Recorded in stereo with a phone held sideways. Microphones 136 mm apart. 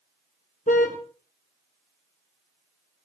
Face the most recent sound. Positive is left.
turn(degrees=70)  # may be behind; listen again after turning